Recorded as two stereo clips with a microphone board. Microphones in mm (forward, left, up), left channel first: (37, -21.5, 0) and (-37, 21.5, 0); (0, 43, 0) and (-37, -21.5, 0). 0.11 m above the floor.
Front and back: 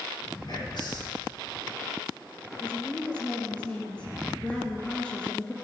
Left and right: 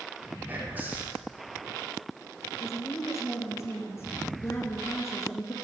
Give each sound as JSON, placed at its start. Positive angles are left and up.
{"t": 0.5, "sound": "whispering", "azimuth_deg": -55, "distance_m": 5.5}
{"t": 2.6, "sound": "a woman speaking", "azimuth_deg": 40, "distance_m": 2.0}